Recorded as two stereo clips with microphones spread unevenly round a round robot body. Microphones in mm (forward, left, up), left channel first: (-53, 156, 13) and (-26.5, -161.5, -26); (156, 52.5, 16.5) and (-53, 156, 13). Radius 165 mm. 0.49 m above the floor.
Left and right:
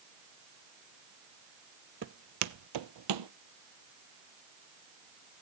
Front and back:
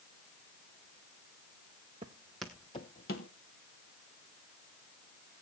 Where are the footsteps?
135° right, 0.7 m; by 3.3 s 70° right, 0.8 m.